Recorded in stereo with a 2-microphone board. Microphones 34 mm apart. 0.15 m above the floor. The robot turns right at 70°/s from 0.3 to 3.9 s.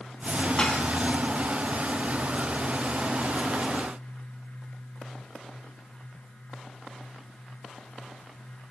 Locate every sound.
0.6 s dishes clattering: 20° left (ahead or behind), 3 m; by 0.8 s 40° left (ahead or behind), 3 m